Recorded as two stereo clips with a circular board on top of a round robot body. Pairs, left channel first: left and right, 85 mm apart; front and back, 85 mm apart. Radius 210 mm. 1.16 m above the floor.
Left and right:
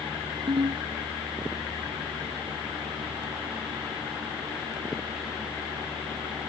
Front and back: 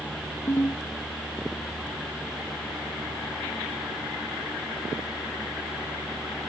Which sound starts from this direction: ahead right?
A ringtone, at 0.5 s.